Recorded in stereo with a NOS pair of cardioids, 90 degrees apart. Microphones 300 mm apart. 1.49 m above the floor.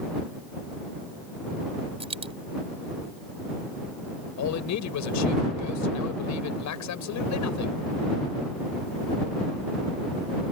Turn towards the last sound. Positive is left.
turn(degrees=70)